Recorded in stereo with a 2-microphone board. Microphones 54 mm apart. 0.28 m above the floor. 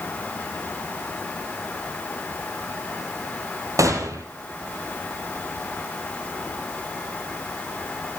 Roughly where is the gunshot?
Right.